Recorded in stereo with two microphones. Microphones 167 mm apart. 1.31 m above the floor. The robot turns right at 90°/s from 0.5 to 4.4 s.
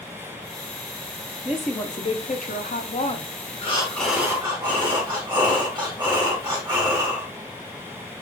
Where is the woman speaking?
15° right, 0.7 m; by 3.3 s 150° left, 0.7 m.